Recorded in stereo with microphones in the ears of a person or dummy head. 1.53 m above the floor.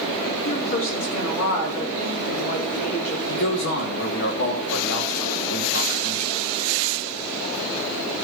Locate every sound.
0.5 s a woman speaking: 55° left (ahead or behind), 4.5 m
3.3 s a man speaking: 70° left (ahead or behind), 3 m